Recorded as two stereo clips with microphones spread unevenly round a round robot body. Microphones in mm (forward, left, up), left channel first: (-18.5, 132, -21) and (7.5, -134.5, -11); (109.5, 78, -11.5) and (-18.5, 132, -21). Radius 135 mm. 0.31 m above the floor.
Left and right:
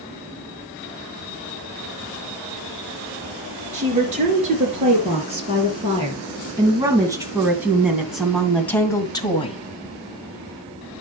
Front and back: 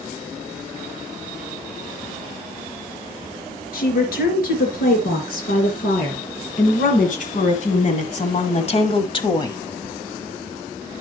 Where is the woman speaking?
20° right, 4.5 m; by 9.6 s 35° left, 1.5 m.